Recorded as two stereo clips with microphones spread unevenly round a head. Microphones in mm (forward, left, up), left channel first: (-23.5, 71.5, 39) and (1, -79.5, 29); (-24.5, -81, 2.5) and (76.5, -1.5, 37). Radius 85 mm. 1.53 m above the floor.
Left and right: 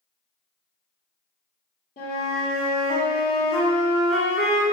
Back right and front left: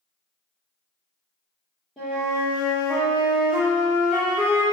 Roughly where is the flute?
Behind left.